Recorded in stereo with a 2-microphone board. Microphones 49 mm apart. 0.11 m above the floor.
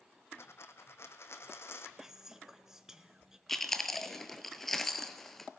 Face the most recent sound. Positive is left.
turn(degrees=5)  # may be behind; listen again after turning